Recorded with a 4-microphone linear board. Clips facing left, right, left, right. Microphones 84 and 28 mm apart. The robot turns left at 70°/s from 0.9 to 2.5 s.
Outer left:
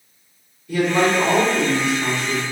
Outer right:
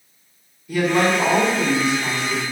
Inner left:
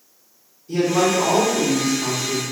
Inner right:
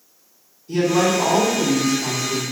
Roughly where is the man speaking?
Behind.